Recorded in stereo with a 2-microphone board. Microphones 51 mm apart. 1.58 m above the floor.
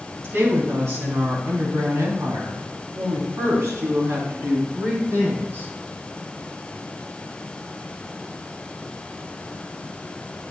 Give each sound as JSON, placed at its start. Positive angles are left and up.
{"t": 0.2, "sound": "a woman speaking", "side_deg": -65, "distance_m": 4.0}